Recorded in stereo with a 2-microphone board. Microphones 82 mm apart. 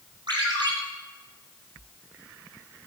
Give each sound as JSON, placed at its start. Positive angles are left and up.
{"t": 0.3, "sound": "a ringtone", "side_deg": -60, "distance_m": 2.5}